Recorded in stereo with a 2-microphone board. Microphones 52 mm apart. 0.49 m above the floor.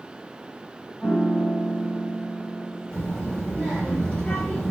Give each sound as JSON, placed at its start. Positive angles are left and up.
{"t": 1.0, "sound": "a piano", "side_deg": -20, "distance_m": 0.8}
{"t": 2.9, "sound": "a child speaking", "side_deg": 20, "distance_m": 0.5}